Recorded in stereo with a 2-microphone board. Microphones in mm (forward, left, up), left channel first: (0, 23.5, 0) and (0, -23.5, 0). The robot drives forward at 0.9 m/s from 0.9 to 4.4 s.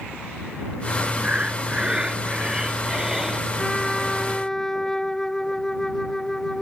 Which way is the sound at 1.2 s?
30° right (ahead or behind).